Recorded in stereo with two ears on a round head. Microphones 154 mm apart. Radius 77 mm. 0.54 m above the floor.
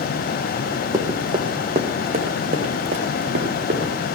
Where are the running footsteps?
20° right (ahead or behind), 1.9 m; by 3.9 s 55° right (ahead or behind), 3 m.